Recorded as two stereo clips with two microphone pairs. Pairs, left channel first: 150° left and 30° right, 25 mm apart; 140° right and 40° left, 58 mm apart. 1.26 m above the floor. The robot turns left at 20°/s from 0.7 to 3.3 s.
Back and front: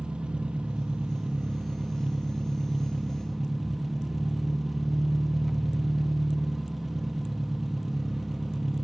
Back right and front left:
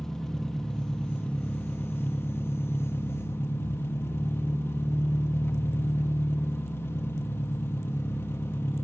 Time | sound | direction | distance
0.0 | an engine running | 60° right | 0.8 m